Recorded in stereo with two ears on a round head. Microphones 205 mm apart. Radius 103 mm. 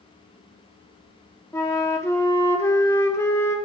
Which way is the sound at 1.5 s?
10° left (ahead or behind).